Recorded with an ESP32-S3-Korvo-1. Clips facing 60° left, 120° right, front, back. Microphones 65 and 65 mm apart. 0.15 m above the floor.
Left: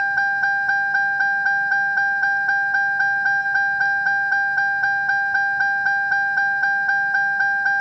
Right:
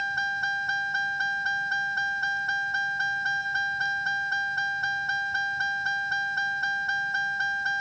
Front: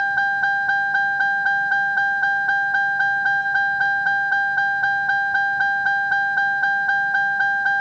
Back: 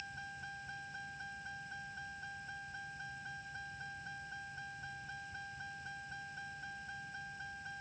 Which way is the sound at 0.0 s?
5° left.